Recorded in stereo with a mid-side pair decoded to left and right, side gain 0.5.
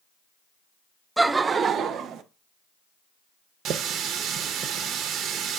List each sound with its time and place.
1.2 s laughter: 10° right, 0.6 m; by 2.2 s 70° right, 0.9 m
3.6 s a running tap: 70° right, 0.7 m